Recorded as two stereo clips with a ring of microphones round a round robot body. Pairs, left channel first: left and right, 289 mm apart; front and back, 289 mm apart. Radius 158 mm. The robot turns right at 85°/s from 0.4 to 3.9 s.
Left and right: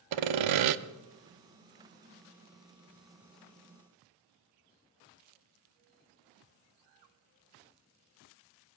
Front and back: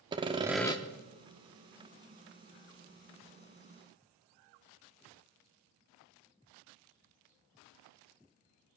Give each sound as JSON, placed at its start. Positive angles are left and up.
{"t": 0.1, "sound": "sawing", "azimuth_deg": -105, "distance_m": 0.6}